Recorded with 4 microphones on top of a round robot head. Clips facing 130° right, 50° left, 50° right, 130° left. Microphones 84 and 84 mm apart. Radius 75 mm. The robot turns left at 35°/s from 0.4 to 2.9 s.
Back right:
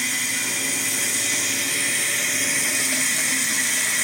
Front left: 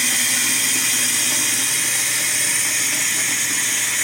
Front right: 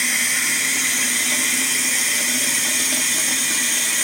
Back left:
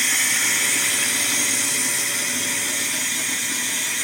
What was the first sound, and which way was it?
Running water, 35° left.